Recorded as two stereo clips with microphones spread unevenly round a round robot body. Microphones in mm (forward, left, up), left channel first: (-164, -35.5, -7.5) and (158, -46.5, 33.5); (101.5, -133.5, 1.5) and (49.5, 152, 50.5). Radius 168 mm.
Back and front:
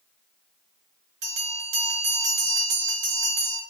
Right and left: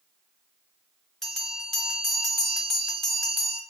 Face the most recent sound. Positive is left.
turn(degrees=15)